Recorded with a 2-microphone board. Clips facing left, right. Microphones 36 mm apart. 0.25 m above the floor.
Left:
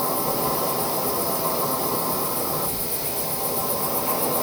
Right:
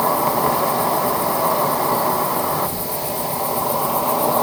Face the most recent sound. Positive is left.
turn(degrees=-55)  # may be behind; listen again after turning